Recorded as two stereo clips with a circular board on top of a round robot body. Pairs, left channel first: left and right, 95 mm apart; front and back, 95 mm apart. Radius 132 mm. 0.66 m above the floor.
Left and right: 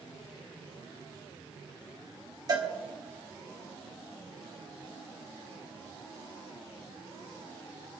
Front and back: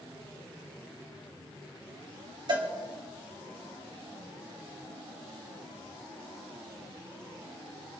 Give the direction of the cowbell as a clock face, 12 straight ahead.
5 o'clock.